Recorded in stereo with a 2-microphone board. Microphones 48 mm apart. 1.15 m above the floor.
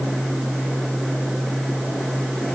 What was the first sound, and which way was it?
Only background noise.